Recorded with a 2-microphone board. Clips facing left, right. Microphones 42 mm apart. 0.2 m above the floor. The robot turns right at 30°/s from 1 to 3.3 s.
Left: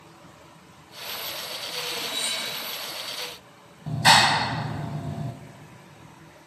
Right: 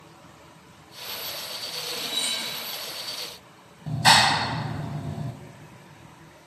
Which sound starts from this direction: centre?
A clap, at 3.9 s.